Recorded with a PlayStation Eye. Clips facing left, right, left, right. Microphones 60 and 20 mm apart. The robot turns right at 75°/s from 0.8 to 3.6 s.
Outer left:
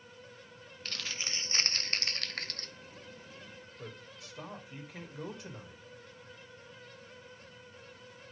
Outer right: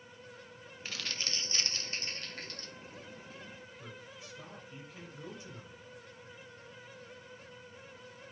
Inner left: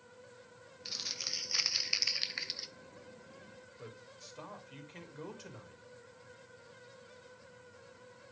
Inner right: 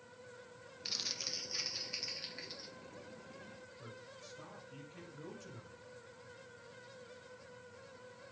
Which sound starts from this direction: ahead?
Crumpling, at 0.8 s.